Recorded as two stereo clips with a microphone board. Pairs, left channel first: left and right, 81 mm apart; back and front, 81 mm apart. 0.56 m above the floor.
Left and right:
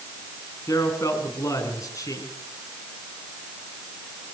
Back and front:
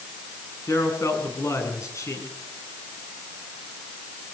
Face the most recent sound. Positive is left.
turn(degrees=135)